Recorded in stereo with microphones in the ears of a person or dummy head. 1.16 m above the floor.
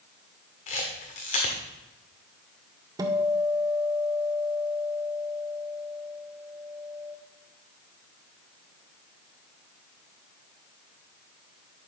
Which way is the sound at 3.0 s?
15° right (ahead or behind).